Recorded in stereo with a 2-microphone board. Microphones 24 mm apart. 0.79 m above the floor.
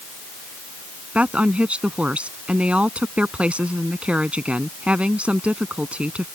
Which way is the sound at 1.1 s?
60° right (ahead or behind).